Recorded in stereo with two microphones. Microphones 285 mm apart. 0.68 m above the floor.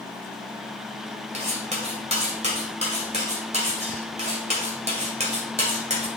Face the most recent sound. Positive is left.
turn(degrees=-25)  # may be behind; listen again after turning